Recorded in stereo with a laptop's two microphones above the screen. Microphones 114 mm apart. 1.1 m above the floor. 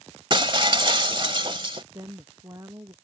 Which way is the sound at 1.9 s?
30° right (ahead or behind).